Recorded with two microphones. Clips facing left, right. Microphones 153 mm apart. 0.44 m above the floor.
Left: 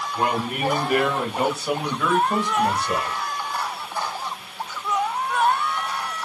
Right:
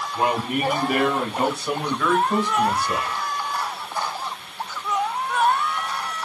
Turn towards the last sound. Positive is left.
turn(degrees=35)  # may be behind; listen again after turning